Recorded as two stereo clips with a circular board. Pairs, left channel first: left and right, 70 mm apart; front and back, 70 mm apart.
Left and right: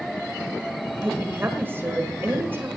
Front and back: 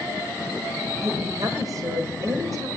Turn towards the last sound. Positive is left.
turn(degrees=-150)